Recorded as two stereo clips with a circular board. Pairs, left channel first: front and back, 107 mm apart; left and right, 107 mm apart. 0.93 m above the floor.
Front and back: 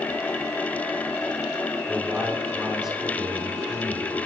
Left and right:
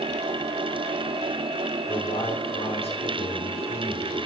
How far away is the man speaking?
About 3 m.